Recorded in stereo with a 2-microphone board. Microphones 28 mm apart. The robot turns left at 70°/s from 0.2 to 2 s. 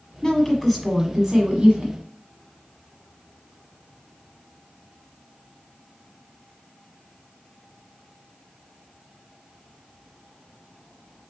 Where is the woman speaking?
45° left, 1.2 m; by 1.9 s 75° right, 1.2 m.